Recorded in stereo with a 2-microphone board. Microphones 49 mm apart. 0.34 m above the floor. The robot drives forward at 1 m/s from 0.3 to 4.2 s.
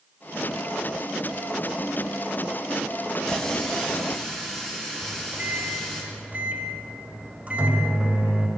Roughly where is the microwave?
Right.